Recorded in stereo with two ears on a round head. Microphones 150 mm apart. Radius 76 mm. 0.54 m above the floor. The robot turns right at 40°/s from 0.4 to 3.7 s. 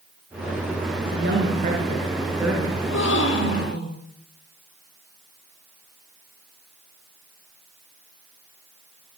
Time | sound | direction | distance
1.1 | a woman speaking | 65° right | 7 m
2.8 | a gasp | 70° left | 9 m